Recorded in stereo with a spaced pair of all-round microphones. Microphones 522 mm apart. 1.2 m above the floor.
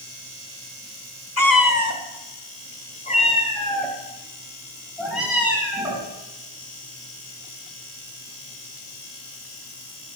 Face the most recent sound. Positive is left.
turn(degrees=-5)  # may be behind; listen again after turning